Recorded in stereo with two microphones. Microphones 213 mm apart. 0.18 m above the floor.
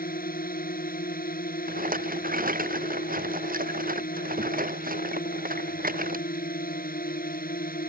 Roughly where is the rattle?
Right.